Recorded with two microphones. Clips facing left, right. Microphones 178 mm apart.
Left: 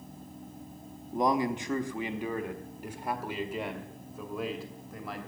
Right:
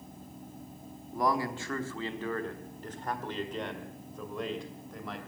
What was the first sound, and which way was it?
A man speaking, 20° left (ahead or behind).